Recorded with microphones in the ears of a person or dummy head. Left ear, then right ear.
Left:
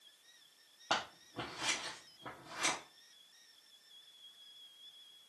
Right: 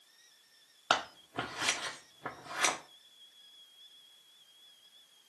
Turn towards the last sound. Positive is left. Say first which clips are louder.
# right 6 dB
turn(degrees=-30)  # may be behind; listen again after turning